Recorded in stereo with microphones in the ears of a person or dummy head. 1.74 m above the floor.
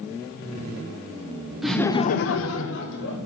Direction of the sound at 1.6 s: 5° left (ahead or behind).